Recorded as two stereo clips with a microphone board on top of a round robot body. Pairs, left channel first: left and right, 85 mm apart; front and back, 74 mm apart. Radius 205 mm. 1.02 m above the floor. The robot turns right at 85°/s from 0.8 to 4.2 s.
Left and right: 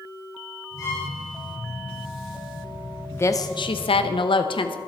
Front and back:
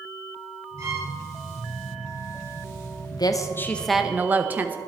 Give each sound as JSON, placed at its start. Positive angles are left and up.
{"t": 0.8, "sound": "a violin", "azimuth_deg": 140, "distance_m": 4.5}
{"t": 3.1, "sound": "a woman speaking", "azimuth_deg": 20, "distance_m": 0.9}